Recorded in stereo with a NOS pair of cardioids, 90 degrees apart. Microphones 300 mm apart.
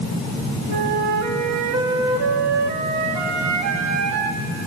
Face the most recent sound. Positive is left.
turn(degrees=-70)